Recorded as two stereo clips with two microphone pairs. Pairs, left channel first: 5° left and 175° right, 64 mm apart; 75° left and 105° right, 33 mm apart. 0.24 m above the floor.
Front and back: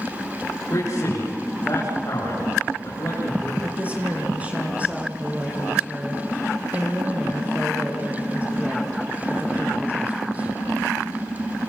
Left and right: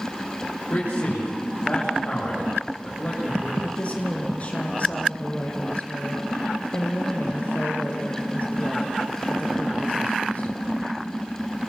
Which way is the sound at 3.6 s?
120° left.